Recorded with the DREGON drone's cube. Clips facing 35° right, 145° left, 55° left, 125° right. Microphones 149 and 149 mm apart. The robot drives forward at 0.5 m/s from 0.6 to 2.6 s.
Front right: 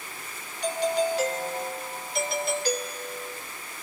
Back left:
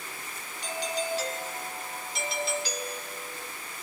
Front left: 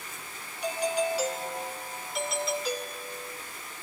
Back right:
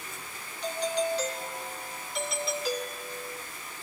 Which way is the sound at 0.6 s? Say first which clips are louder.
Front right 8 dB, front left 1 dB; 25° right.